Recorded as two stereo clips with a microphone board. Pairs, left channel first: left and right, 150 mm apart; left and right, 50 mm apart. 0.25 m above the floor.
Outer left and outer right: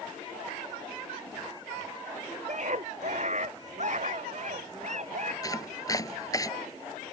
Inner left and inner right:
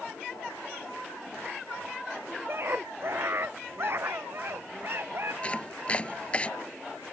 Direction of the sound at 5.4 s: 25° left (ahead or behind).